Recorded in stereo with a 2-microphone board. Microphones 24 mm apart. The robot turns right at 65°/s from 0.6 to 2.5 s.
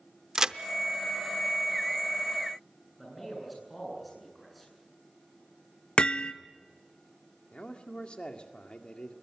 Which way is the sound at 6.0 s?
40° left (ahead or behind).